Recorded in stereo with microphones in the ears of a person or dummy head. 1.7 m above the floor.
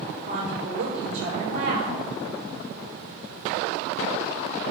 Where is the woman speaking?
55° right (ahead or behind), 9 m.